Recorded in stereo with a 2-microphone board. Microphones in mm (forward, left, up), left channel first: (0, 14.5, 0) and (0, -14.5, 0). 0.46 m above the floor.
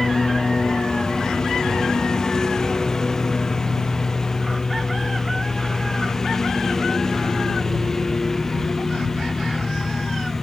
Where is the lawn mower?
25° left (ahead or behind); by 10.4 s 15° left (ahead or behind).